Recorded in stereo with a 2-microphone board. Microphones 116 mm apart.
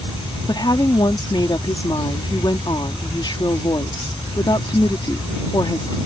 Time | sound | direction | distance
0.5 | a woman speaking | 40° left (ahead or behind) | ?